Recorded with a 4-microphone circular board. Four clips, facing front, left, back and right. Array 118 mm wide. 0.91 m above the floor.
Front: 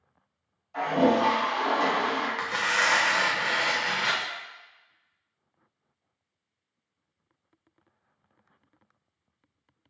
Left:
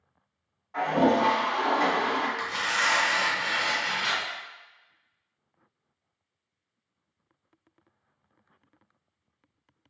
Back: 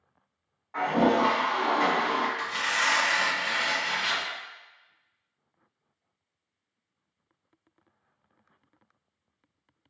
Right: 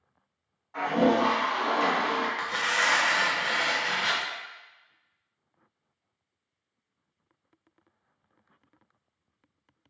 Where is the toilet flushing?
175° left, 1.9 m.